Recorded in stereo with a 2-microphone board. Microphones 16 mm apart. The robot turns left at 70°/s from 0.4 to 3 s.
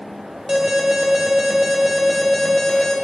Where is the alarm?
60° right, 2.0 m; by 3.0 s 130° left, 2.0 m.